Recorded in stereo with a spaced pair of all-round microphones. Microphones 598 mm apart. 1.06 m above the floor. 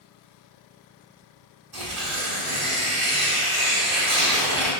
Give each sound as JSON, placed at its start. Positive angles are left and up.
{"t": 1.7, "sound": "tearing paper", "side_deg": -40, "distance_m": 1.2}